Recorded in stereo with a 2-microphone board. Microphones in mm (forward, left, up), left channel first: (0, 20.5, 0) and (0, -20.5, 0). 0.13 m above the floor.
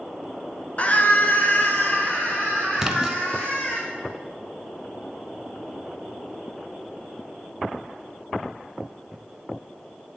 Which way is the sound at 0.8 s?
35° left (ahead or behind).